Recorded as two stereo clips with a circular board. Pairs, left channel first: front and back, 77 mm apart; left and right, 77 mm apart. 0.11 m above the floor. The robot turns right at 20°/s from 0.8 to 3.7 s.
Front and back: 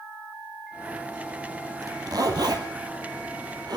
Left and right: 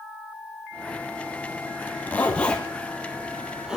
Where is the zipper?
150° left, 2.5 m; by 3.8 s 170° right, 2.5 m.